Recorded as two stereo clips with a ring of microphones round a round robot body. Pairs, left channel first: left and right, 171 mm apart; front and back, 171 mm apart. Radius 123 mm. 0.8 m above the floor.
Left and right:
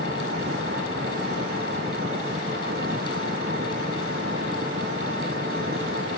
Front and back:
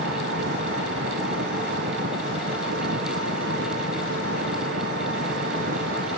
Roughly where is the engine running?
Behind right.